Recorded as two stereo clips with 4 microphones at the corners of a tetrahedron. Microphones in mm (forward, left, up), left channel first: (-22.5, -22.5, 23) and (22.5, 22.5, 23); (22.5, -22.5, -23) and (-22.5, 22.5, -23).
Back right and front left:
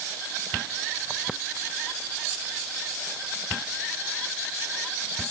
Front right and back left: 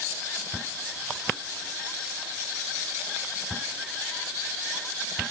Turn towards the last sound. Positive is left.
No sound to turn to.